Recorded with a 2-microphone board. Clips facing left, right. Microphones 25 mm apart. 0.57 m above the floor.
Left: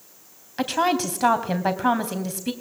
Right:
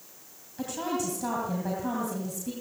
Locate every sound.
0.6 s a woman speaking: 65° left (ahead or behind), 3 m